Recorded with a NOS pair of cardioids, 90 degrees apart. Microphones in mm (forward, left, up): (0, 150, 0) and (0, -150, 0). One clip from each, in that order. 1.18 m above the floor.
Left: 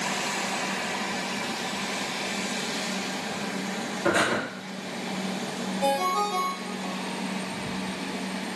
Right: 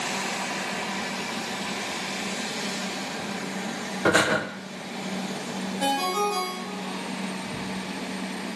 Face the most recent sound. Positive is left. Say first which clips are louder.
# even
turn(degrees=-60)